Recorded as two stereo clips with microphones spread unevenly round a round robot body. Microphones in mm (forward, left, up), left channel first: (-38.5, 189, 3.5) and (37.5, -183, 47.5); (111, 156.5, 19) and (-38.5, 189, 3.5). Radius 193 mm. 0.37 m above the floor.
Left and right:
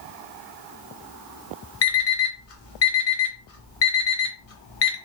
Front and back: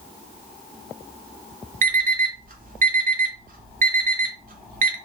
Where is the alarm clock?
150° left, 0.8 m.